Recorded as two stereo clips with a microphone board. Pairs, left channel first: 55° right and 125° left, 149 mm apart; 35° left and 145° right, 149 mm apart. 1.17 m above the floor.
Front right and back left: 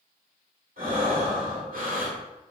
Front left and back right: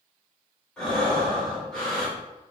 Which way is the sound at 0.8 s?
120° left.